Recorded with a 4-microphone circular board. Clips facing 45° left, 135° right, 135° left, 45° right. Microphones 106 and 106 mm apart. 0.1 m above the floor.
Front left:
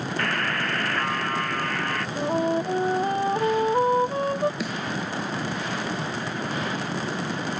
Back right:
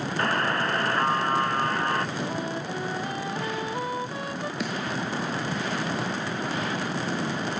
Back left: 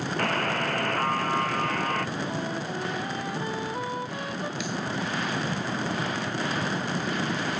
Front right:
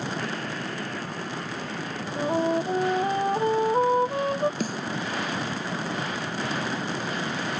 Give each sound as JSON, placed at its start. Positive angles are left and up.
{"t": 0.2, "sound": "a buzzer", "azimuth_deg": 160}
{"t": 2.2, "sound": "a flute", "azimuth_deg": 0}
{"t": 4.6, "sound": "a snare drum", "azimuth_deg": -45}